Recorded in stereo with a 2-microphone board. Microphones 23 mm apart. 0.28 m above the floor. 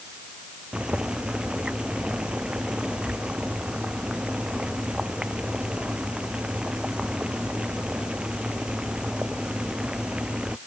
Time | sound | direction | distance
0.7 | boiling | 40° right (ahead or behind) | ?